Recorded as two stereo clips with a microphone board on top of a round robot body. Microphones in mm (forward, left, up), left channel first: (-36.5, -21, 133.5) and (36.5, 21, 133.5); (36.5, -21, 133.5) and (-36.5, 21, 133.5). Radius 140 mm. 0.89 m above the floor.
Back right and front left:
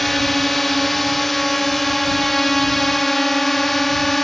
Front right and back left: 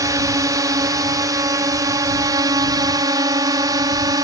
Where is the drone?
125° left.